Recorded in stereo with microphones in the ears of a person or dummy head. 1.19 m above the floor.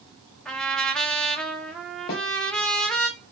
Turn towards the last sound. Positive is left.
turn(degrees=50)  # may be behind; listen again after turning